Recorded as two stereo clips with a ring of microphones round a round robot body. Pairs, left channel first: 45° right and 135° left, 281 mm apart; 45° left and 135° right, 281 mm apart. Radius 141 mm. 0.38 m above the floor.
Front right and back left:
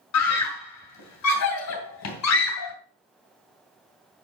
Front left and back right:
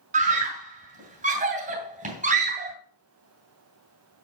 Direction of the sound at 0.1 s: 70° right.